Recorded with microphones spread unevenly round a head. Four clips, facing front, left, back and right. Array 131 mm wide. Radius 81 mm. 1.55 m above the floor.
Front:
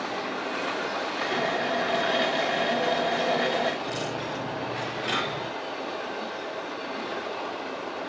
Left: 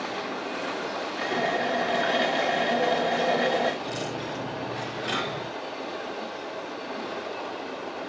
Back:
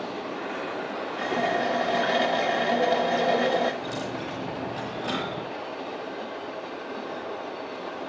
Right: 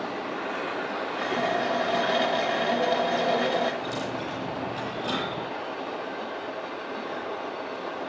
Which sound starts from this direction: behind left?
A running tap, at 1.2 s.